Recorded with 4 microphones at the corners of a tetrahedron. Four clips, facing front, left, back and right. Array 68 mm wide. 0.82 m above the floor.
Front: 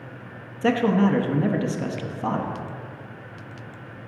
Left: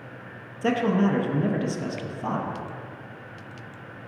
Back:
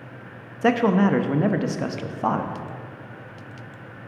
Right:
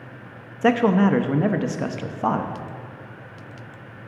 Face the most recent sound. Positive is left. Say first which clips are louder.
# right 5 dB, back 1 dB
turn(degrees=-115)